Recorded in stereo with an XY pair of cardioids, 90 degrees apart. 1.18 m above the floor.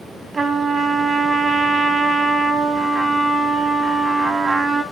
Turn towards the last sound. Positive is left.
turn(degrees=-45)